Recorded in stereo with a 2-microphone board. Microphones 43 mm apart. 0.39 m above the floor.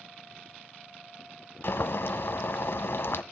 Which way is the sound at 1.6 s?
60° left (ahead or behind).